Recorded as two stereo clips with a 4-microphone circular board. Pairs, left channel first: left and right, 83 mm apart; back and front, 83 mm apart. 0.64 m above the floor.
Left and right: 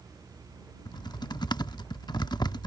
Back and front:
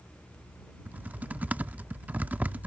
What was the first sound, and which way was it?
Typing on a keyboard, 70° left.